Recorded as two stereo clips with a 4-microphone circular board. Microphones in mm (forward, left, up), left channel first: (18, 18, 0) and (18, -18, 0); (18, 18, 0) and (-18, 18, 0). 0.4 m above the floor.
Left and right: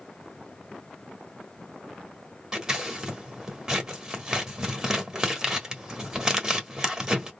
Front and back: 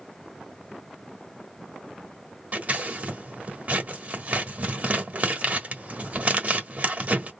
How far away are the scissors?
About 1.4 m.